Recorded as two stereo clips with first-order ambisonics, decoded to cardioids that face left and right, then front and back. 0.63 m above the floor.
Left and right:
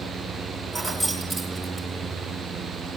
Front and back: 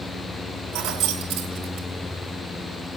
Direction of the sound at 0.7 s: Straight behind.